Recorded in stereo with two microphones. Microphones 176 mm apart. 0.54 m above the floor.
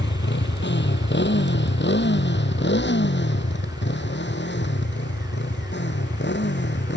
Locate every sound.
0.0 s a motorcycle: 90° left; by 7.0 s 85° left